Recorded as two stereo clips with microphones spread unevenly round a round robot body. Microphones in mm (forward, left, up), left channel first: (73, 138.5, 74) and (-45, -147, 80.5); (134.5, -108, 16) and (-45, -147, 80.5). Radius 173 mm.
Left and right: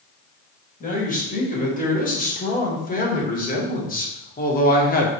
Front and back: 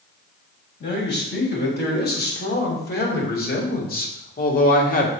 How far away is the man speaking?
About 4.5 m.